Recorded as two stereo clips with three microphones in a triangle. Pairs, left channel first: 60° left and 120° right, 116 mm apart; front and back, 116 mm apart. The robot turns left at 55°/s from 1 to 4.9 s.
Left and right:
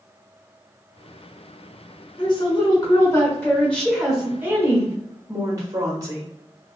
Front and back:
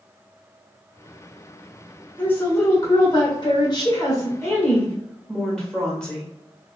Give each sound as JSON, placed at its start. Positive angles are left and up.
{"t": 2.2, "sound": "a woman speaking", "azimuth_deg": 70, "distance_m": 1.3}